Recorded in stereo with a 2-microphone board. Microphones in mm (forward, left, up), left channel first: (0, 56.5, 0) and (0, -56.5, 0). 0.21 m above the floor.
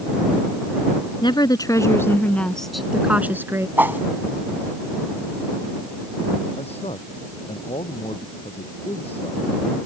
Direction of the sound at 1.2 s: 40° left (ahead or behind).